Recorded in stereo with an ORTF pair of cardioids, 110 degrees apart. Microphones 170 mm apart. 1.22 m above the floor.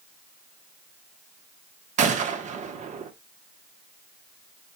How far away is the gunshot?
About 1.3 m.